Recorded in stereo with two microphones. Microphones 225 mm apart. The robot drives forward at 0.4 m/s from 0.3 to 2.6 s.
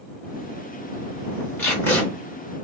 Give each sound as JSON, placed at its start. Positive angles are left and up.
{"t": 1.6, "sound": "tape being pulled", "side_deg": 10, "distance_m": 1.6}